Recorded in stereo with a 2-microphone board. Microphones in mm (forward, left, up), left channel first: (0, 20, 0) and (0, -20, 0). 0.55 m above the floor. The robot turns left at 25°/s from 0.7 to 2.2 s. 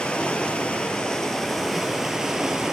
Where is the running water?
25° left, 1.3 m; by 2.7 s 10° right, 1.3 m.